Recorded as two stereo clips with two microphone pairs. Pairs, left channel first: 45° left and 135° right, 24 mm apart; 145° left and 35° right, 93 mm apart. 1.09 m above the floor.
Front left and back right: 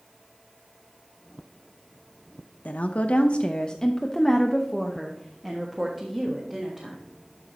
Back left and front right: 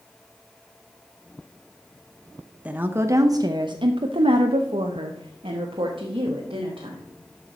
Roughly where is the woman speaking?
Ahead left.